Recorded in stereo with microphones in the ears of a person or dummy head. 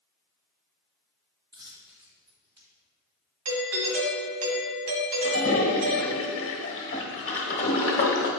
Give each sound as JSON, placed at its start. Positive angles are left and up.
{"t": 1.5, "sound": "a dropped coin", "side_deg": -25, "distance_m": 2.0}
{"t": 3.5, "sound": "a doorbell", "side_deg": -80, "distance_m": 1.5}
{"t": 5.2, "sound": "a toilet flushing", "side_deg": 30, "distance_m": 0.8}